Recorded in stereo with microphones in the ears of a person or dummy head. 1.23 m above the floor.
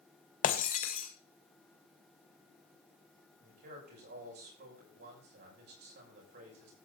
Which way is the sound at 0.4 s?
40° left (ahead or behind).